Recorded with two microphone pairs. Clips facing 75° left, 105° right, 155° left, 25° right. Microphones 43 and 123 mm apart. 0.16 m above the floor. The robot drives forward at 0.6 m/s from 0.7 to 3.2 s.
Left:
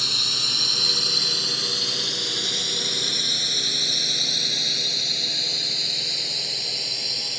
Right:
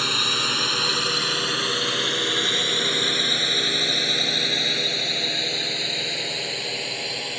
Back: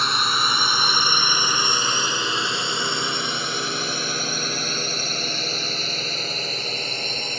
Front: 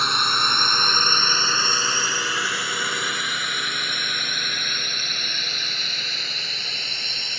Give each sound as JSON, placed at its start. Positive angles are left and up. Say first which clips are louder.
{"t": 0.0, "sound": "a drone", "louder": "right 4 dB, even", "azimuth_deg": -120}